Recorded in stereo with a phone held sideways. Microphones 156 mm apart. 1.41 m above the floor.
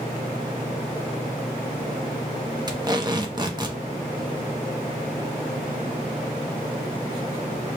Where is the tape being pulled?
25° right (ahead or behind), 0.6 m.